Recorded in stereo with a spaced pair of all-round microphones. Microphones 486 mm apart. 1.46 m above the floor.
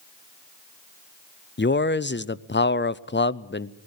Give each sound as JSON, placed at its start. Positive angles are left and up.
{"t": 1.6, "sound": "a man speaking", "side_deg": 25, "distance_m": 0.5}